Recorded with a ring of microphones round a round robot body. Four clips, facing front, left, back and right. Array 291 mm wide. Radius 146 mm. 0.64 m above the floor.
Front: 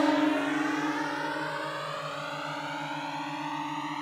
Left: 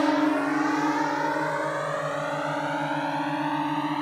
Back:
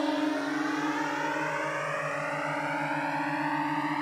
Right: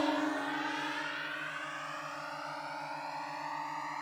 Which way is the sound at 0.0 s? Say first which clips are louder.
Left 10 dB, front 3 dB; 60° left.